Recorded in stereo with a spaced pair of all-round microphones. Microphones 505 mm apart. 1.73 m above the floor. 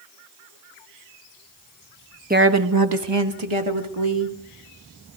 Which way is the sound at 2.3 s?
15° right (ahead or behind).